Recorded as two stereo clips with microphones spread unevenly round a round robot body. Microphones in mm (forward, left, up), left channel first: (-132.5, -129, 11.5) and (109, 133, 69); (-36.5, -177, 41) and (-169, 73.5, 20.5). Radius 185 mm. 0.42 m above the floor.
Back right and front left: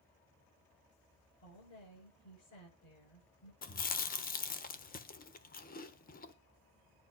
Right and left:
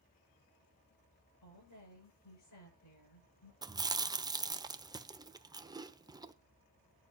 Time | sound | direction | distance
1.4 | a woman speaking | 80° right | 7.5 m
3.6 | chewing | 175° right | 1.1 m